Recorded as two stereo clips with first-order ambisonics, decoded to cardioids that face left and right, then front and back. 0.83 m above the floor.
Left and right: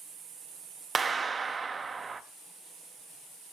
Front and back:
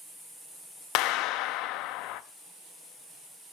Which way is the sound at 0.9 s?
20° right.